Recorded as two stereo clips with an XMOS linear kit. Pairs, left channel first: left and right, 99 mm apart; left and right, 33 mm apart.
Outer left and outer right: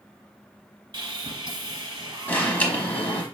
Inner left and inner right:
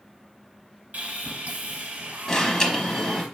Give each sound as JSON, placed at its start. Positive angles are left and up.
{"t": 0.9, "sound": "sawing", "side_deg": -50, "distance_m": 1.1}
{"t": 2.3, "sound": "an alarm", "side_deg": 15, "distance_m": 1.0}